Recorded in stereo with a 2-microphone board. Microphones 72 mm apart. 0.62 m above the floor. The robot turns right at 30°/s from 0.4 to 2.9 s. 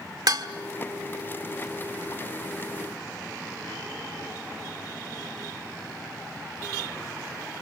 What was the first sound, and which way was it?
Dishes clattering, 60° right (ahead or behind).